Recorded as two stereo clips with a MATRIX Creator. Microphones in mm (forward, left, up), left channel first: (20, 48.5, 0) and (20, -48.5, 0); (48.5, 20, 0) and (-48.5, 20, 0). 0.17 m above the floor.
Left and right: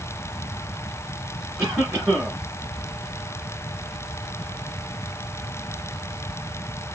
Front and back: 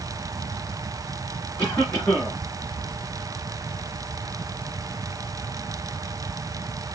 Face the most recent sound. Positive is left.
turn(degrees=-55)